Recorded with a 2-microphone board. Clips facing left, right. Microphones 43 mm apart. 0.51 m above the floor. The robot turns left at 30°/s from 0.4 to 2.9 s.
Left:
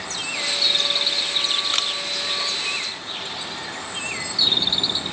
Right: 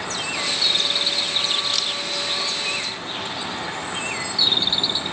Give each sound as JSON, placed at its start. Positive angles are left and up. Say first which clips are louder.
{"t": 1.7, "sound": "a camera shutter", "louder": "left 1 dB", "side_deg": 40}